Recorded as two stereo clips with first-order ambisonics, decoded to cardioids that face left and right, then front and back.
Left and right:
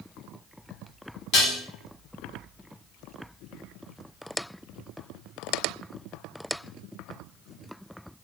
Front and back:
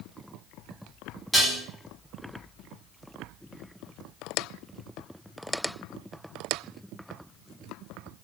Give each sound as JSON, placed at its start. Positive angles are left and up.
{"t": 1.3, "sound": "dishes clattering", "azimuth_deg": 85, "distance_m": 0.8}